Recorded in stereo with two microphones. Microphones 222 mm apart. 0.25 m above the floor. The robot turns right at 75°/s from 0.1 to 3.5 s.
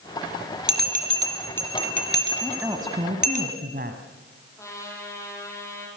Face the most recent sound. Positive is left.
turn(degrees=15)  # may be behind; listen again after turning